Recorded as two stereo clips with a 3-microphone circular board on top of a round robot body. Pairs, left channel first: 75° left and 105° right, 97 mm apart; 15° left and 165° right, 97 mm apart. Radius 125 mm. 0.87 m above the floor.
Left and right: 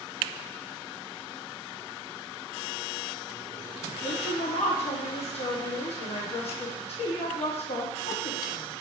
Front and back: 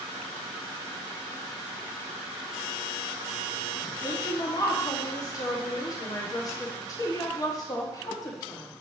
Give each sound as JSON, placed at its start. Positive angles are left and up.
{"t": 4.0, "sound": "a woman speaking", "azimuth_deg": 70, "distance_m": 1.6}